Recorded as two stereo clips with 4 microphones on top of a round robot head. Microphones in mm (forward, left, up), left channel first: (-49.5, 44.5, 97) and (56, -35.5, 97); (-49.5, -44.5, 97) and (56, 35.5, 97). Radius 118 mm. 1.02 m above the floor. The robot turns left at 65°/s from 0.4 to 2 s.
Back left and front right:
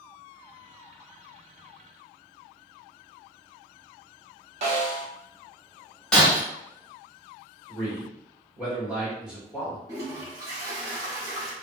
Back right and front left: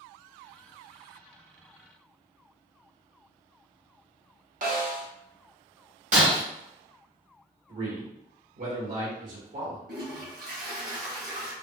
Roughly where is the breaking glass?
Ahead left.